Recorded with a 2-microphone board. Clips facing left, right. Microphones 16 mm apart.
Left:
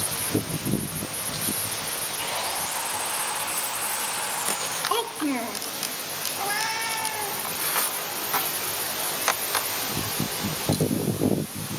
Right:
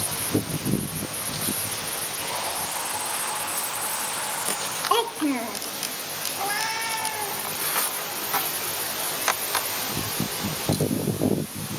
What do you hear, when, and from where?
2.2 s sawing: 25° left (ahead or behind), 9.5 m
4.9 s a child speaking: 20° right (ahead or behind), 0.6 m
6.4 s a cat meowing: 15° right (ahead or behind), 2.5 m